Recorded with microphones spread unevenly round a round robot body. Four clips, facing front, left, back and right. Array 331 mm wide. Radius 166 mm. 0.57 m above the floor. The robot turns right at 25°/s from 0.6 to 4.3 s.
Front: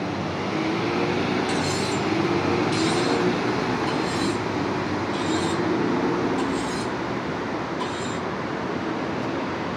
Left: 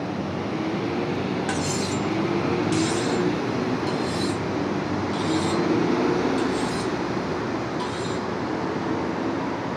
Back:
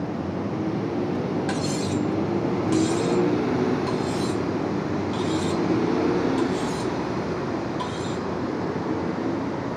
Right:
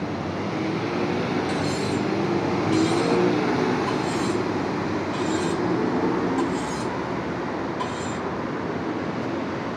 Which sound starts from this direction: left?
Cutlery clinking, at 1.5 s.